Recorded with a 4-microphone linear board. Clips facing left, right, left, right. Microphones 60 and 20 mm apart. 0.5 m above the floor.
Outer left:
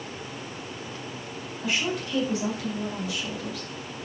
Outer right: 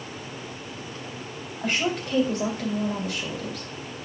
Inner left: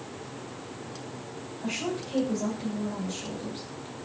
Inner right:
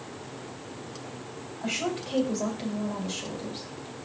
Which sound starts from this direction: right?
A woman speaking, at 1.6 s.